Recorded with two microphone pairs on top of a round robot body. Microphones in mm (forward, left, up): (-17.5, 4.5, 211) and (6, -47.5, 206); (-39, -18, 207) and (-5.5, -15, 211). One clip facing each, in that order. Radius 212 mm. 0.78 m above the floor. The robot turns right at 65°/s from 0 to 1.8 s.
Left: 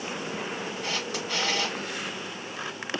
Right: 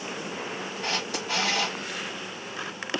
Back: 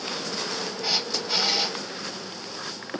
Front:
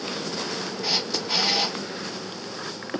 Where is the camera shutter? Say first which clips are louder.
Right 4 dB, front 1 dB; 95° right, 1.0 m; by 1.8 s 35° right, 1.0 m.